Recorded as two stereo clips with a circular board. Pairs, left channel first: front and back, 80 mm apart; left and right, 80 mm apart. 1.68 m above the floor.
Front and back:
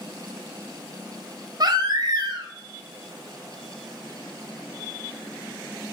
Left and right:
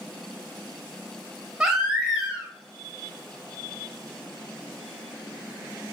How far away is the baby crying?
About 0.7 m.